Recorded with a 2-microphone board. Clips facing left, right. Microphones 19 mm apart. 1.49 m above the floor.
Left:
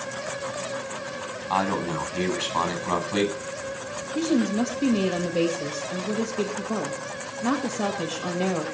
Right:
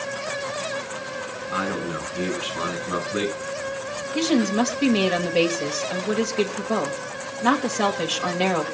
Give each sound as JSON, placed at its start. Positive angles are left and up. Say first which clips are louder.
{"t": 1.5, "sound": "a man speaking", "louder": "left 2 dB", "side_deg": 45, "distance_m": 10.0}
{"t": 4.1, "sound": "a woman speaking", "louder": "right 3 dB", "side_deg": -40, "distance_m": 2.0}